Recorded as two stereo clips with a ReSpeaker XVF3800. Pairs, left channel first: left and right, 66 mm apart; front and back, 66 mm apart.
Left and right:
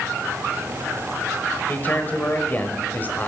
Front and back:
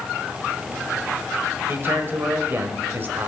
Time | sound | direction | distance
1.7 | a man speaking | 140° left | 1.2 m